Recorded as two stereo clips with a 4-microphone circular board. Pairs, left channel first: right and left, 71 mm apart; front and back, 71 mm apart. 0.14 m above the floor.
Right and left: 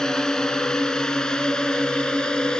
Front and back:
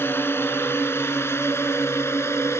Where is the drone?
15° right.